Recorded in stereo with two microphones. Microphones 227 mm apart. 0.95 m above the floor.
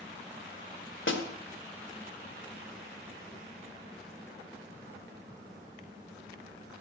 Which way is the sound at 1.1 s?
65° left (ahead or behind).